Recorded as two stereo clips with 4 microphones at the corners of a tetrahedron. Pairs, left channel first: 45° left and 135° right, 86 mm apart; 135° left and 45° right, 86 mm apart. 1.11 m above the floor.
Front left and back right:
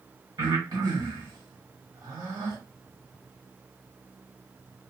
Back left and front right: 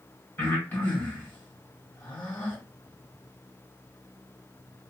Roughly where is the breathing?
Behind.